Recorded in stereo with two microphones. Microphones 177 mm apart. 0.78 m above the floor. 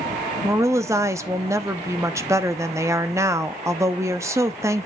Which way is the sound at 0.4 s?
15° right (ahead or behind).